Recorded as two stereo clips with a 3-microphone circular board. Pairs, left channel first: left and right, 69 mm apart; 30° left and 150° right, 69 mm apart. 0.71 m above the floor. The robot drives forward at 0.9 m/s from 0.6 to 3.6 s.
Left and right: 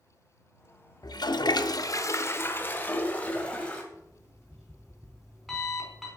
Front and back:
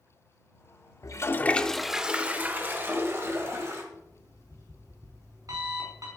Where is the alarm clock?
Straight behind, 4.5 m.